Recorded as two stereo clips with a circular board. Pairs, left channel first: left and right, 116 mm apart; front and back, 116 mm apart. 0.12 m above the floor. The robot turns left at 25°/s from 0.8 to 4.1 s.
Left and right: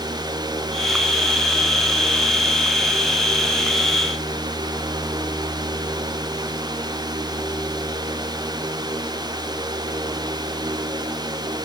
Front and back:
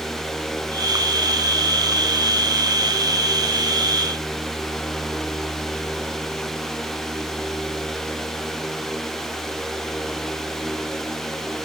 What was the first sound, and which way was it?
Only background noise.